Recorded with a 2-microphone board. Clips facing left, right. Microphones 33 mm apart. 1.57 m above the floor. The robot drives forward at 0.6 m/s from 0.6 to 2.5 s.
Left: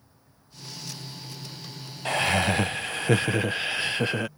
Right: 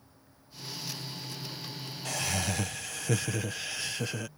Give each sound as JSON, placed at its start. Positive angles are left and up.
{"t": 2.0, "sound": "laughter", "side_deg": 40}